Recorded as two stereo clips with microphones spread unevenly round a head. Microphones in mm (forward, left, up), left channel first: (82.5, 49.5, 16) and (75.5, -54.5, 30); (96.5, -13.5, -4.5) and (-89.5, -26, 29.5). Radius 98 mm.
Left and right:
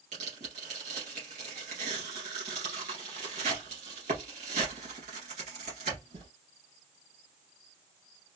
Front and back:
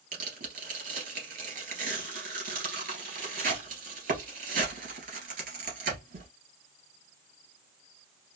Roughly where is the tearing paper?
Behind right.